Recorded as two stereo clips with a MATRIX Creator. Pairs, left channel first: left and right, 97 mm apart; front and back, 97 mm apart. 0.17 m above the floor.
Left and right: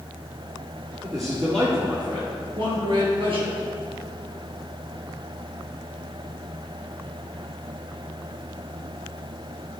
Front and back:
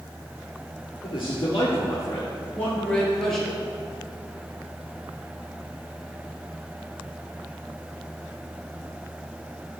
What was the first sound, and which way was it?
A man speaking, 35° right.